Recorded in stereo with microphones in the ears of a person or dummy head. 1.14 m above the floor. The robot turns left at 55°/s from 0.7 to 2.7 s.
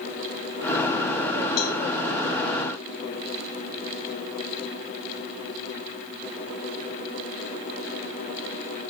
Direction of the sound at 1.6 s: 55° left (ahead or behind).